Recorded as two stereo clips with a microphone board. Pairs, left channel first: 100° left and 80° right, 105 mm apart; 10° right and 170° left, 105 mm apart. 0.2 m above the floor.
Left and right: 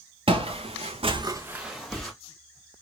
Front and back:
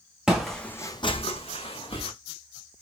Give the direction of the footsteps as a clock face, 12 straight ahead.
4 o'clock.